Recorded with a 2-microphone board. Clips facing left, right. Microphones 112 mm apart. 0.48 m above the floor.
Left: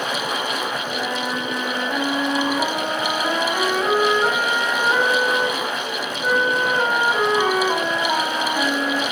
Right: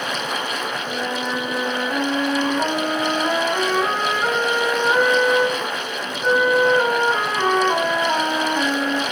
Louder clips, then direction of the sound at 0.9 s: Even; 5° right (ahead or behind).